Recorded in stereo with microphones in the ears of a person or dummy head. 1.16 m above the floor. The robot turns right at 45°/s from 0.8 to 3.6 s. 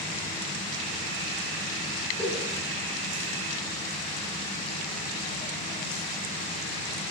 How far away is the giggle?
About 5.5 m.